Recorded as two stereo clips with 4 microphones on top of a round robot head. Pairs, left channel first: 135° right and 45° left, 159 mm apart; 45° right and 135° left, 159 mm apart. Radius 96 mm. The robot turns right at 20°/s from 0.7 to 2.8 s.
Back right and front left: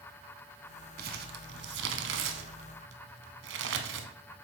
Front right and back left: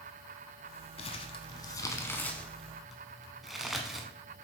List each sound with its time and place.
1.0 s crumpling: 10° left, 0.8 m; by 4.1 s 45° left, 0.8 m